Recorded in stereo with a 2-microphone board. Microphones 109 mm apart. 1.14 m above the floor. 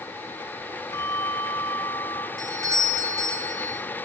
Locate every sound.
0.9 s a bell: 30° left (ahead or behind), 4 m
2.4 s a doorbell: 30° right (ahead or behind), 3.5 m